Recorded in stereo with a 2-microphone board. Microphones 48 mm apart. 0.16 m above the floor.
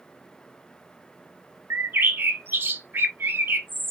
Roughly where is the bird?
Right.